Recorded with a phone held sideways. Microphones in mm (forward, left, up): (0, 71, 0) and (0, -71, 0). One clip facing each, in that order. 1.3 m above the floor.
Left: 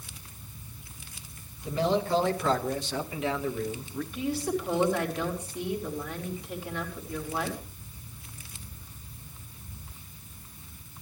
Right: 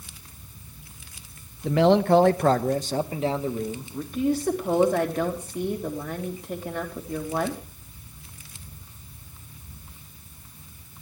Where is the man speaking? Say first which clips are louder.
Right 8 dB; 75° right (ahead or behind), 1.2 m; by 4.0 s 20° right (ahead or behind), 2 m.